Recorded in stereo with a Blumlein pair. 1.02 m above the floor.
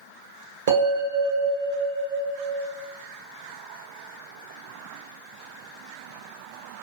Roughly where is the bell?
Ahead right.